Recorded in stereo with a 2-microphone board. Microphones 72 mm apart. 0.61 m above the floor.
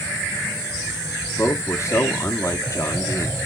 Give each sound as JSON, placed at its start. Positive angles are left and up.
{"t": 1.4, "sound": "a man speaking", "side_deg": 45, "distance_m": 1.1}